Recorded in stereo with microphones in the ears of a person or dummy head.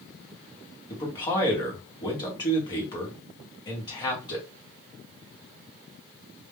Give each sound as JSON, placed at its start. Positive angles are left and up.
{"t": 0.9, "sound": "a man speaking", "side_deg": 25, "distance_m": 0.9}